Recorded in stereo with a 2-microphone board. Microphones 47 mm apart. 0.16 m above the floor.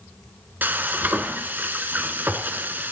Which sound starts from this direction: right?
Frying, at 0.6 s.